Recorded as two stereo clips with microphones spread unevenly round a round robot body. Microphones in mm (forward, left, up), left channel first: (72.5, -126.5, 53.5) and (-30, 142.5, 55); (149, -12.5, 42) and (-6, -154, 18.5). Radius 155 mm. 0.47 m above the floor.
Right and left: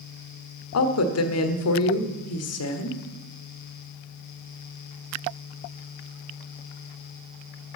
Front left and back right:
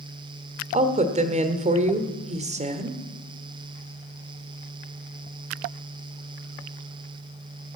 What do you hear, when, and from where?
0.7 s a woman speaking: 90° right, 1.3 m